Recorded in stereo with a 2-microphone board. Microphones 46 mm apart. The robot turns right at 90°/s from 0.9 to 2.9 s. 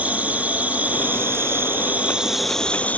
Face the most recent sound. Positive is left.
turn(degrees=40)